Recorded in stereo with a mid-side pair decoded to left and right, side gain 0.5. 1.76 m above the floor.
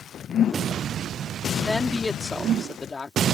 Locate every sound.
1.6 s a woman speaking: 10° left; by 3.2 s 30° left